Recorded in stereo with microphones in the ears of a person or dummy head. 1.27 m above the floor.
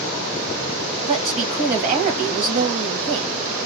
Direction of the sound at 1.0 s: 40° right (ahead or behind).